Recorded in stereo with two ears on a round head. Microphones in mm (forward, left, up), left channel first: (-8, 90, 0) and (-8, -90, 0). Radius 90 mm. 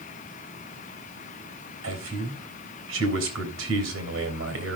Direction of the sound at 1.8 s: 75° right (ahead or behind).